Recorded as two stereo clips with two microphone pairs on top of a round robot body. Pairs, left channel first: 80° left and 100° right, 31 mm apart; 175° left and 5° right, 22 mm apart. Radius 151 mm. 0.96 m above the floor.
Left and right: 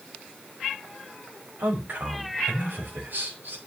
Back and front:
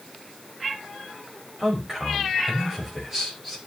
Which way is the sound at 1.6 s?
80° right.